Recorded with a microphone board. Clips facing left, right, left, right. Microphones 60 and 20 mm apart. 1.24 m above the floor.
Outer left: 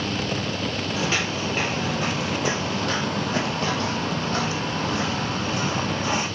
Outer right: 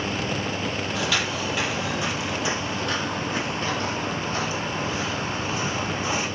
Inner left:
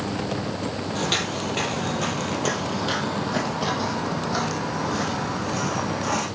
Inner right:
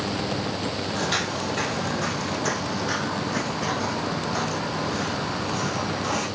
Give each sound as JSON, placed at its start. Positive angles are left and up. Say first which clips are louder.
{"t": 0.9, "sound": "footsteps", "louder": "outer left 1 dB, inner left 2 dB", "side_deg": 30, "distance_m": 2.0}